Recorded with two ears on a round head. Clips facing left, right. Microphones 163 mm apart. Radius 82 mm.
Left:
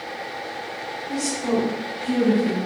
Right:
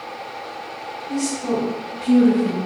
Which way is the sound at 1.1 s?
15° right (ahead or behind).